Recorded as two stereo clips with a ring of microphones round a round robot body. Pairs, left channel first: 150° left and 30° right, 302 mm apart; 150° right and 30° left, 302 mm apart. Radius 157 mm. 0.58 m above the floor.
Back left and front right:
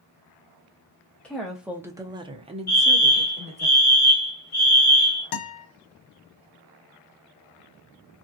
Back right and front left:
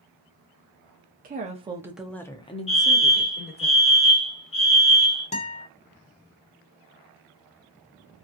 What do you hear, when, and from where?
1.2 s a woman speaking: 65° left, 0.7 m; by 3.7 s 95° right, 1.3 m
2.7 s a fire alarm: 160° left, 1.8 m
5.3 s a guitar: 140° left, 0.8 m